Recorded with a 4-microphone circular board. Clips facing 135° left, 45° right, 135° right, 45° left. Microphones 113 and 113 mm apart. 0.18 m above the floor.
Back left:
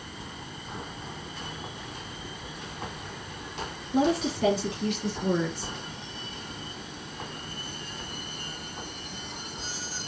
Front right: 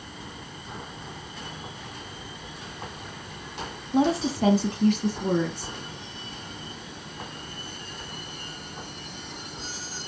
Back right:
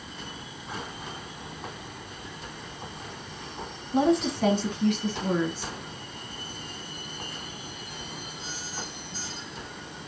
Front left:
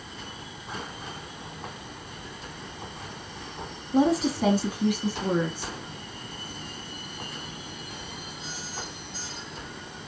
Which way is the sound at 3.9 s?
45° right.